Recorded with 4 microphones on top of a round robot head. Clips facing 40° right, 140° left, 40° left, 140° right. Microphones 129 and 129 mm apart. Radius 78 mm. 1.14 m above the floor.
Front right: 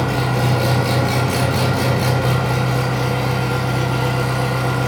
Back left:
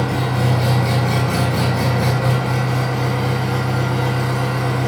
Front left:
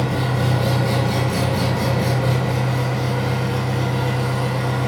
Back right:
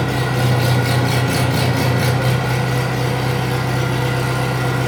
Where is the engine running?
115° right, 1.8 m.